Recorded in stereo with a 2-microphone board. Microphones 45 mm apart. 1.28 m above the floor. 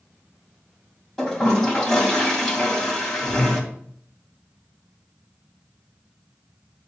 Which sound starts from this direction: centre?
A toilet flushing, at 1.2 s.